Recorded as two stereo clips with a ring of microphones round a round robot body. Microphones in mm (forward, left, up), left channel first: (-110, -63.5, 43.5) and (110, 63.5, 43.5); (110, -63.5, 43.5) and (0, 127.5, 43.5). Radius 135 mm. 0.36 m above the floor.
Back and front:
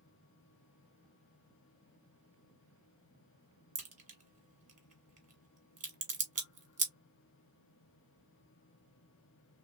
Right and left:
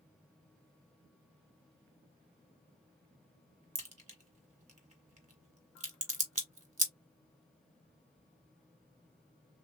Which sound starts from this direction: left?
A crack, at 3.8 s.